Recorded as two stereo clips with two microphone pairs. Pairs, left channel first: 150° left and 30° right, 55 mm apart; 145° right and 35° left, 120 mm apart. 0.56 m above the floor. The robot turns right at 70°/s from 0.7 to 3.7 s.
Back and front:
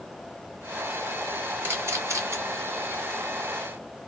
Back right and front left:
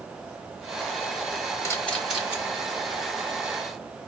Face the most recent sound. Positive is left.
turn(degrees=60)